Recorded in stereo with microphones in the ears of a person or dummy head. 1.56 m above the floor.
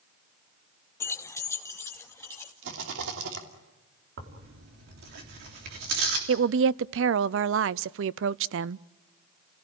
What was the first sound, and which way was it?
Keys jangling, 15° left (ahead or behind).